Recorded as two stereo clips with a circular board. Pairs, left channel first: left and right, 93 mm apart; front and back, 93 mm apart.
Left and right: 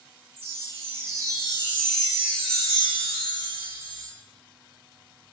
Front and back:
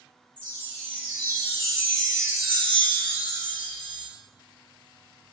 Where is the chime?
75° right, 1.0 m.